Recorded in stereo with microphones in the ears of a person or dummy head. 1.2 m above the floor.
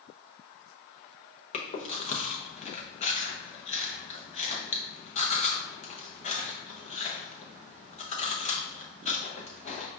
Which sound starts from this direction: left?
Chewing, at 1.5 s.